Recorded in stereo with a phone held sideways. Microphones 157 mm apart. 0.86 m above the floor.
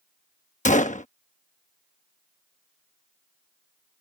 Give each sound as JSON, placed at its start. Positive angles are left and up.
{"t": 0.7, "sound": "a gunshot", "side_deg": 55}